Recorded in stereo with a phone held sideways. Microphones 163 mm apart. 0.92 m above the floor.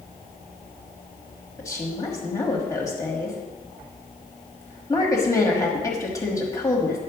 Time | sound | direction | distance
1.6 | a woman speaking | 25° left (ahead or behind) | 1.5 m